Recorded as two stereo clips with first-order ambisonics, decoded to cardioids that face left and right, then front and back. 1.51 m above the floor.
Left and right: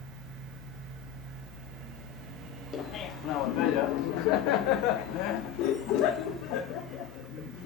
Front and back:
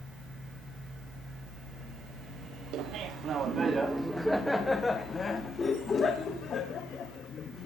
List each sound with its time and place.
2.7 s laughter: 145° left, 1.2 m; by 7.7 s 55° left, 3.5 m